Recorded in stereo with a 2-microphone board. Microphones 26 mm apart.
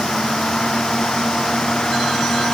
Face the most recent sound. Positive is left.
No sound to turn to.